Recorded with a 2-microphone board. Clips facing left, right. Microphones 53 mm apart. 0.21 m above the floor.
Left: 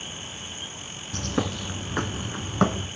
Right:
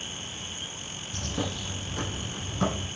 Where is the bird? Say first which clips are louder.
Left 5 dB; 65° left (ahead or behind), 1.1 m.